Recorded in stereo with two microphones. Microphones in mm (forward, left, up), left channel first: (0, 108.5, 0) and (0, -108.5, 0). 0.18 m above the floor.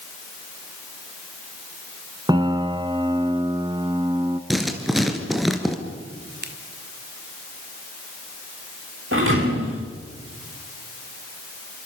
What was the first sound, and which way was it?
A piano, 20° right (ahead or behind).